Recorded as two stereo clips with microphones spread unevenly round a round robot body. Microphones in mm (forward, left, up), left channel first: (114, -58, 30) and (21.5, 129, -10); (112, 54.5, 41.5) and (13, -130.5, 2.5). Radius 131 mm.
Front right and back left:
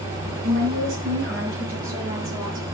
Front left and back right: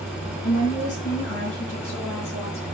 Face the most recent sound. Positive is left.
turn(degrees=105)